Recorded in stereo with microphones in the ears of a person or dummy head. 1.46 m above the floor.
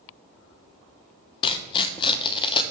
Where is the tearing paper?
25° left (ahead or behind), 0.7 m.